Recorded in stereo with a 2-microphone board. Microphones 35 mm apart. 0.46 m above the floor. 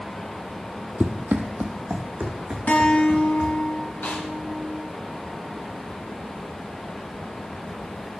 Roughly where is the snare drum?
Left.